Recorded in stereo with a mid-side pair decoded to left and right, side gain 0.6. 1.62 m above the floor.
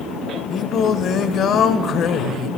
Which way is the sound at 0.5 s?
50° left.